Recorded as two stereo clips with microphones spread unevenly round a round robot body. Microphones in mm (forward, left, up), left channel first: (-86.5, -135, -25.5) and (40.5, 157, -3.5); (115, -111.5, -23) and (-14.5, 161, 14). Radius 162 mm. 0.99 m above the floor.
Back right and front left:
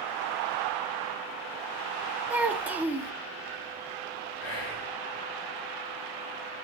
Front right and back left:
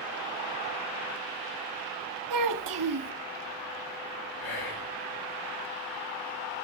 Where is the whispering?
90° right, 6.5 m.